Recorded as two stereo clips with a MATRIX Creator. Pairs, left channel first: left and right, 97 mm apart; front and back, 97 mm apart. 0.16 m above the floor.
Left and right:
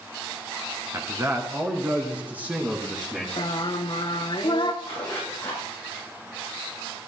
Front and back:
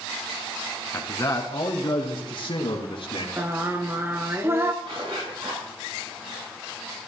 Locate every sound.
0.9 s a man speaking: 50° right, 2 m; by 3.3 s 10° right, 3.5 m
3.4 s singing: 115° left, 1.0 m
4.8 s a zipper: 160° left, 8 m